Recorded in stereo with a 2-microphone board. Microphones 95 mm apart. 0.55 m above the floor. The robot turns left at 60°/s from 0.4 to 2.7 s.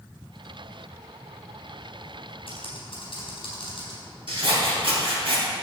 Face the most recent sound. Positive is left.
turn(degrees=-65)  # may be behind; listen again after turning